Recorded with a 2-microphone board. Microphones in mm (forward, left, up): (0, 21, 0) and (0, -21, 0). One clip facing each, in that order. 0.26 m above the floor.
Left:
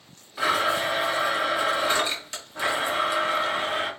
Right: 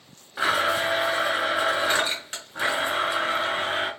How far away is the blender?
About 1.9 m.